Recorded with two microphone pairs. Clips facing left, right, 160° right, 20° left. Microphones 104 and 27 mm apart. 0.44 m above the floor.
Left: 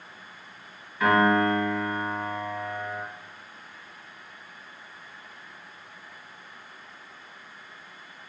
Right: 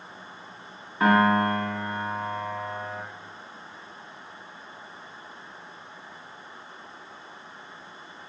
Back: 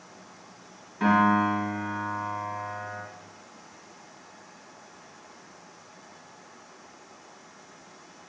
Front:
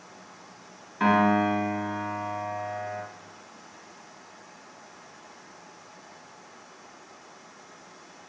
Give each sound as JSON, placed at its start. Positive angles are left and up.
{"t": 1.0, "sound": "a piano", "azimuth_deg": -35, "distance_m": 0.9}